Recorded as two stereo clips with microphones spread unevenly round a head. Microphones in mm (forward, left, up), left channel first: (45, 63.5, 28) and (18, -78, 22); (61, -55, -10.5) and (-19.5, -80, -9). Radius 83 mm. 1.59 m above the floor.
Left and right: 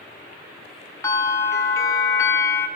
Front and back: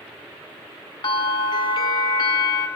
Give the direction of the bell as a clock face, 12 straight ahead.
12 o'clock.